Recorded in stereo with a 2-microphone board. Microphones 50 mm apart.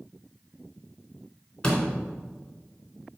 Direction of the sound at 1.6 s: 20° left (ahead or behind).